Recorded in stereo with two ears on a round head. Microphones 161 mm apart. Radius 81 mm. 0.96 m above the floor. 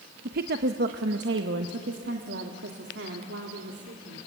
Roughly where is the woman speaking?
Right.